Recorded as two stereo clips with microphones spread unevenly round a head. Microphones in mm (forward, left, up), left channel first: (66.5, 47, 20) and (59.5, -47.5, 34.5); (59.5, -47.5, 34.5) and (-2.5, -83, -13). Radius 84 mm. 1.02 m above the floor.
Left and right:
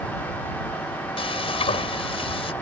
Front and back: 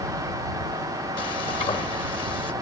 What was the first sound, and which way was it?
Frying, 60° left.